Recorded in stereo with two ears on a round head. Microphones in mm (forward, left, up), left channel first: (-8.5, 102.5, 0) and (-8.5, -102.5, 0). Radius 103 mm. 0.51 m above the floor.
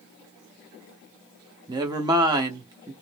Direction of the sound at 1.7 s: 15° right (ahead or behind).